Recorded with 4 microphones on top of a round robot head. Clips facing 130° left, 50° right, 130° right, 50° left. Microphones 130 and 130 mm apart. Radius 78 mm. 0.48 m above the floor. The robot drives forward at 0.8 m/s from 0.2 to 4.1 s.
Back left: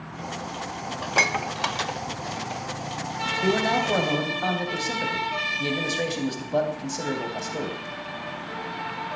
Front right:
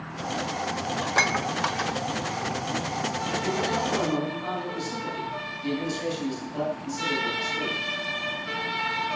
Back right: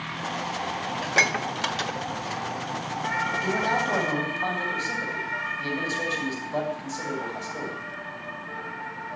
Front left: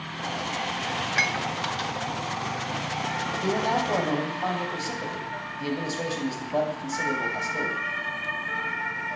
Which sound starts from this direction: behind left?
A man speaking, at 3.4 s.